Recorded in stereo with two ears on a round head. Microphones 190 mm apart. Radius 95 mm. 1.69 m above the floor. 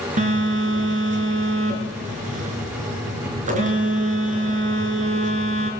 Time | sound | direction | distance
0.2 | a phone buzzing | 35° right (ahead or behind) | 4 m